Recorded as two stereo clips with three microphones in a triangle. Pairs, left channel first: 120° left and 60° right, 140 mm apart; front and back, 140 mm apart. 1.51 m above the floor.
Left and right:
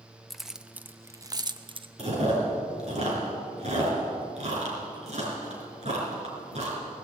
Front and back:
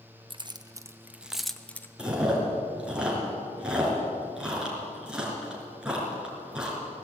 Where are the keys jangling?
150° right, 0.9 m; by 1.9 s 70° right, 0.9 m.